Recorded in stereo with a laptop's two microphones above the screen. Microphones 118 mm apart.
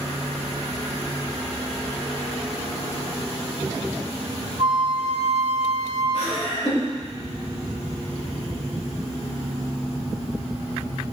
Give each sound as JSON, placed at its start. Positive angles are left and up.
{"t": 4.6, "sound": "a flute", "side_deg": -45, "distance_m": 1.8}
{"t": 6.1, "sound": "laughter", "side_deg": 65, "distance_m": 3.5}